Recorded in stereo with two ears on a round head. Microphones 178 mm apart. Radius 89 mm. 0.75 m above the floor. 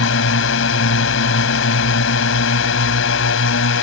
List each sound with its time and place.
0.0 s a drone: 70° left (ahead or behind)